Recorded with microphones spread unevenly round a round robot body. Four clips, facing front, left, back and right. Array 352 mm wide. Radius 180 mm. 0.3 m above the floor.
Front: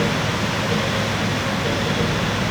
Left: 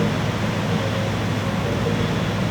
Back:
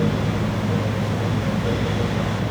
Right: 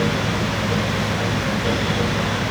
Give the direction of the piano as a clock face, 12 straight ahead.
I don't hear a piano.